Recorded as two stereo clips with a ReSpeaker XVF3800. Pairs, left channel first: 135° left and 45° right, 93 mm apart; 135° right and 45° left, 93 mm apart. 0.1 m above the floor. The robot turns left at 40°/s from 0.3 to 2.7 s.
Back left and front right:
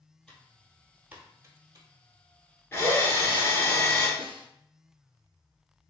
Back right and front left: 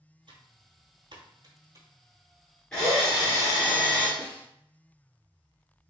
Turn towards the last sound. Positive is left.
turn(degrees=-25)